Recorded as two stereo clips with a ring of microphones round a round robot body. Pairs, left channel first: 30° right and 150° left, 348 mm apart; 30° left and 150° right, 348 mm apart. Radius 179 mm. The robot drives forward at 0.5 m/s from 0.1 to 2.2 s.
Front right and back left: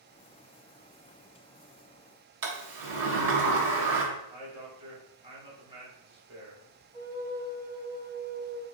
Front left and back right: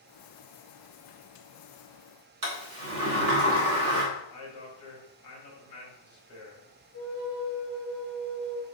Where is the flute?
70° left, 1.1 m.